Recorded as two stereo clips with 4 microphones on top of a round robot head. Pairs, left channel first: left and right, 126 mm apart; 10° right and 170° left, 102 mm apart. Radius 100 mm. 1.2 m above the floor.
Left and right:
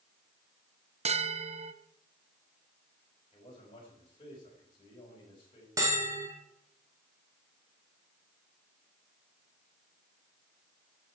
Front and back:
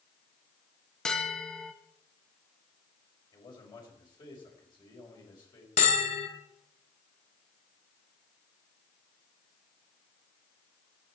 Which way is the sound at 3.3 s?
35° left.